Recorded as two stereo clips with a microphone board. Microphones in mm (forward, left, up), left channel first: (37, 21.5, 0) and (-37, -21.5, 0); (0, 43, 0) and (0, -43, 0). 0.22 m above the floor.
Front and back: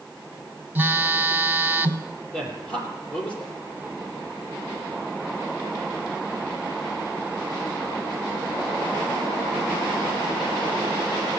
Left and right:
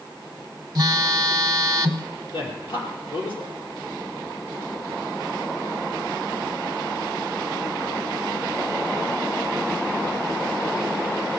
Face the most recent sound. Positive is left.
turn(degrees=105)